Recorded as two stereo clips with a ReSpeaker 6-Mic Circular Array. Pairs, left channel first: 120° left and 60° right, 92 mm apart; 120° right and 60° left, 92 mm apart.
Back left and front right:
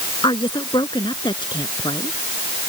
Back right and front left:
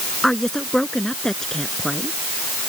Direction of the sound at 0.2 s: 155° left.